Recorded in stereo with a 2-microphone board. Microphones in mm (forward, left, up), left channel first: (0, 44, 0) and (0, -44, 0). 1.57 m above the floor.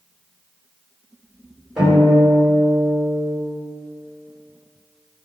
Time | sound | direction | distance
1.8 | a guitar | 5° right (ahead or behind) | 2.0 m